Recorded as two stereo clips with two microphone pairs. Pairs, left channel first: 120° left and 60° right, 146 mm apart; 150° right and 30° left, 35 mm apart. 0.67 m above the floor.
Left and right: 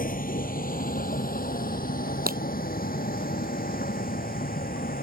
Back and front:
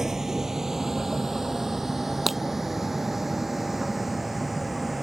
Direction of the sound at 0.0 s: 105° left.